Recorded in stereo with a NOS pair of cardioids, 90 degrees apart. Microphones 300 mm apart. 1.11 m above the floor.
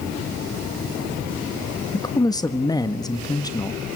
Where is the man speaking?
15° left, 1.7 m.